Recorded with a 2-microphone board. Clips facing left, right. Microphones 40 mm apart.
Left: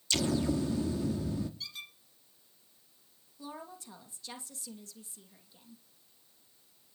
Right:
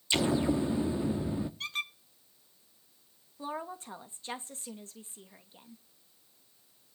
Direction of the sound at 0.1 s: 25° right (ahead or behind).